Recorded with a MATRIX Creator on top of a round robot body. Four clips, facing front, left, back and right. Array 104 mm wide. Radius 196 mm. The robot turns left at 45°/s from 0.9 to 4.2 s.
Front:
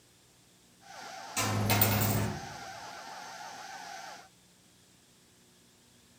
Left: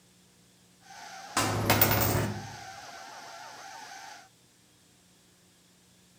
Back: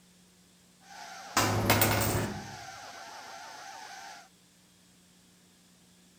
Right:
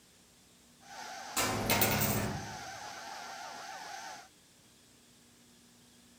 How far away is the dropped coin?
About 0.7 m.